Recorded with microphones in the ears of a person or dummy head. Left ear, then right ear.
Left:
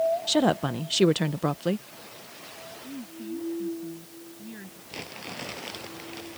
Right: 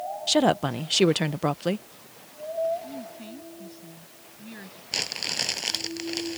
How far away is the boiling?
No boiling in this recording.